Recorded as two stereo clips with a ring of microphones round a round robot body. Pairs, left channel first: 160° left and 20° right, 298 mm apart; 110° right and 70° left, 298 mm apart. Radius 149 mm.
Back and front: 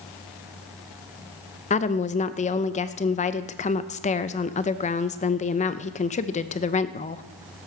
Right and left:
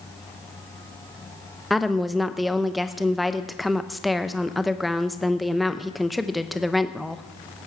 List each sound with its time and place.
1.7 s a woman speaking: 160° left, 0.6 m